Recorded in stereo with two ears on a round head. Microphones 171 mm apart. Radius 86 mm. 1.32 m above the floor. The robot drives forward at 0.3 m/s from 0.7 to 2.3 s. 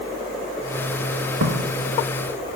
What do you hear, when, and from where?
1.4 s footsteps: 60° right (ahead or behind), 5.5 m; by 2.6 s 45° right (ahead or behind), 4.5 m